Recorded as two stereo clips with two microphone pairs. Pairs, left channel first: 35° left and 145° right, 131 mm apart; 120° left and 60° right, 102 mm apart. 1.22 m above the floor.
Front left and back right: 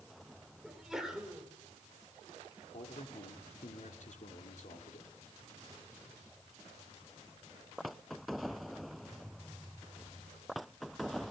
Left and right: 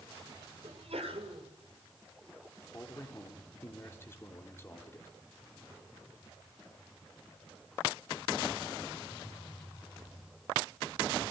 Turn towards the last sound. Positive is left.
turn(degrees=55)